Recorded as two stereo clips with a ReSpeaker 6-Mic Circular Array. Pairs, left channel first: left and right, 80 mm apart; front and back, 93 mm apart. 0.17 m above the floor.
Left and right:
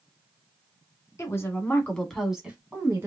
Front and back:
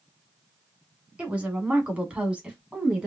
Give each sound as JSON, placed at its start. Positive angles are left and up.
{"t": 1.2, "sound": "a woman speaking", "azimuth_deg": 110, "distance_m": 1.2}